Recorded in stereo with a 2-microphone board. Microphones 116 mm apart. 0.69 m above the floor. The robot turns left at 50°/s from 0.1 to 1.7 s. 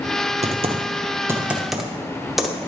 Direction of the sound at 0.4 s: 65° right (ahead or behind).